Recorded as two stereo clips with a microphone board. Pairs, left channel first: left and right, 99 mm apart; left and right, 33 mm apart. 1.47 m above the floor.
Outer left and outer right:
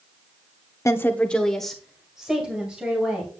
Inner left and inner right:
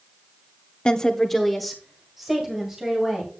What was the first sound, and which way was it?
A woman speaking, 30° left (ahead or behind).